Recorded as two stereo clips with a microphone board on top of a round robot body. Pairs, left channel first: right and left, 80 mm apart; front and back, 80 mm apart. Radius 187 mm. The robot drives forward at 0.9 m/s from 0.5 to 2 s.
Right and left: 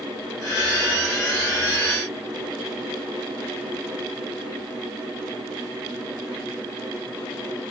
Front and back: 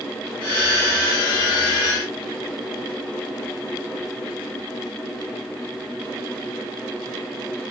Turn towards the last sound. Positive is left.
No sound to turn to.